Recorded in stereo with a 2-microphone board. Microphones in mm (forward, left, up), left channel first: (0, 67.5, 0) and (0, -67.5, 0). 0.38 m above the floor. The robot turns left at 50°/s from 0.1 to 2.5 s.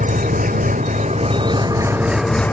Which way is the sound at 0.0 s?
70° right.